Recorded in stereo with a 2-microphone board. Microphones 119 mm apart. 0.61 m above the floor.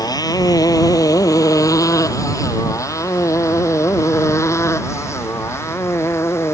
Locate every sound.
0.0 s a motorcycle: 35° left (ahead or behind); by 6.5 s 25° left (ahead or behind)